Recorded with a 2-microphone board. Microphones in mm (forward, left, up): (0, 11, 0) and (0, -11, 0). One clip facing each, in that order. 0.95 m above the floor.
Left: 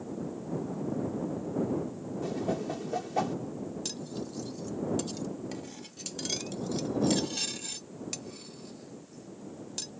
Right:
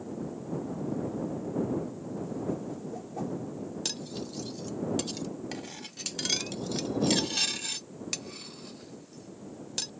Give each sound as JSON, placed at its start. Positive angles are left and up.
{"t": 2.2, "sound": "a whoosh", "side_deg": 75}
{"t": 3.9, "sound": "cutlery clinking", "side_deg": -25}